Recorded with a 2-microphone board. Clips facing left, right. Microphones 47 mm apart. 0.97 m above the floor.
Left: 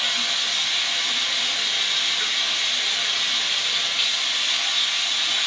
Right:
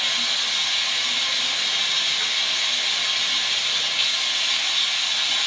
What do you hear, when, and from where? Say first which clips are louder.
0.0 s running water: even; 5° left (ahead or behind), 1.2 m